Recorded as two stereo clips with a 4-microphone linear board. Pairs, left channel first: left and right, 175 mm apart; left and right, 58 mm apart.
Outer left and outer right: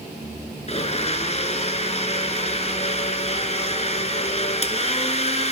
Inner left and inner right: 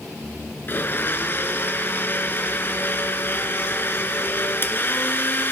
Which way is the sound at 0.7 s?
40° left (ahead or behind).